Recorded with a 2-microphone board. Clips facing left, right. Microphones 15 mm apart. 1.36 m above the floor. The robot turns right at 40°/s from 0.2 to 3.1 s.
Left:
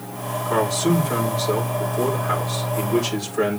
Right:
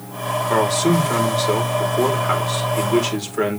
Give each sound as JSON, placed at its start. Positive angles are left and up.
{"t": 0.5, "sound": "a man speaking", "azimuth_deg": -125, "distance_m": 4.5}